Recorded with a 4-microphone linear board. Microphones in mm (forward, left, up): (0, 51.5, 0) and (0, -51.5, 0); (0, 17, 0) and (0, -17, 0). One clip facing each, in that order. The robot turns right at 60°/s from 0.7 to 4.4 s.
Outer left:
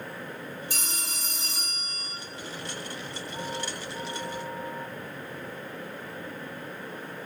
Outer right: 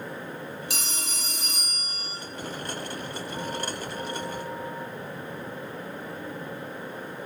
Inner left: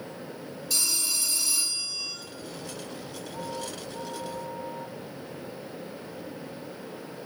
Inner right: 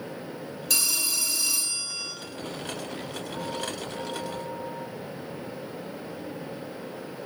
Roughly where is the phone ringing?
Right.